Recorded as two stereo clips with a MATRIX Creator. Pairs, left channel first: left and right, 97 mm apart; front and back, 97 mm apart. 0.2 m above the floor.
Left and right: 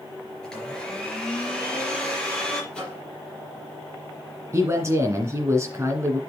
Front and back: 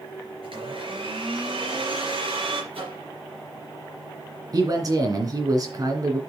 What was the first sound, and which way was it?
A blender, 175° left.